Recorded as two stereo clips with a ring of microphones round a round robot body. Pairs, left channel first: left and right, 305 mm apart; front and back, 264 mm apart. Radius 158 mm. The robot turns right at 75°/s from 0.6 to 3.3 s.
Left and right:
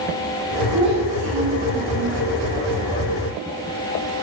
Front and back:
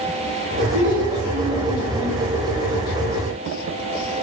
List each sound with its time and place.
0.7 s a child speaking: 160° right, 1.4 m; by 2.2 s 55° right, 1.4 m